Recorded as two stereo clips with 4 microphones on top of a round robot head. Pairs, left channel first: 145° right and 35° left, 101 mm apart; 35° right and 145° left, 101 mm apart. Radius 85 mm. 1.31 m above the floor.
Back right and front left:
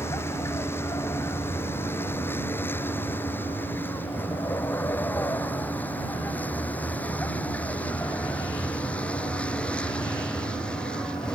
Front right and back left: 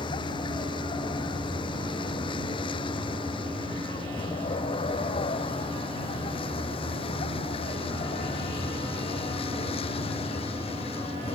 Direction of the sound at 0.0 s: 80° right.